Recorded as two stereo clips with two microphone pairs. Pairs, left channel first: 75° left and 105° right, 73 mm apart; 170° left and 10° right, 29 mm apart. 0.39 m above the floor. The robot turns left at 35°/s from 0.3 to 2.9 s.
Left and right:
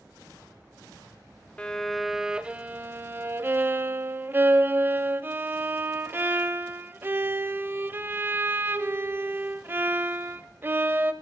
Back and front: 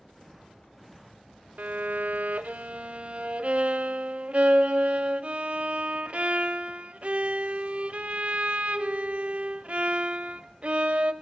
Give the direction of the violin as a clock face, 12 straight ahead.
12 o'clock.